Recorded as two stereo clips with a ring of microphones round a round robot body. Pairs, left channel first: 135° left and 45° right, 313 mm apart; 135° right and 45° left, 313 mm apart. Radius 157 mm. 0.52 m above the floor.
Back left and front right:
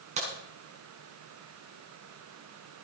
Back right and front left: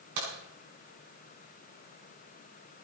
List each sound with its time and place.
0.2 s a crack: 25° left, 6 m